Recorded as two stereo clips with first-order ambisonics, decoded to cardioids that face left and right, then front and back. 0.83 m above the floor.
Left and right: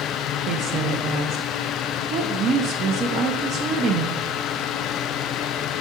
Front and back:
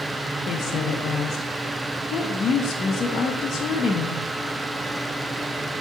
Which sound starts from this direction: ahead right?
A woman speaking, at 0.5 s.